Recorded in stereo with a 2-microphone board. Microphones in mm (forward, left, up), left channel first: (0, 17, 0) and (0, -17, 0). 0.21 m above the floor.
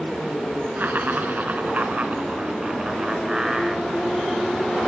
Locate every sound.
0.8 s laughter: 60° right (ahead or behind), 3 m; by 4.8 s 5° left (ahead or behind), 3.5 m